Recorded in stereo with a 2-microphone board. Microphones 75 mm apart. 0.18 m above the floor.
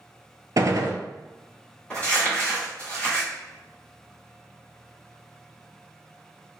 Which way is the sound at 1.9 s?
15° left (ahead or behind).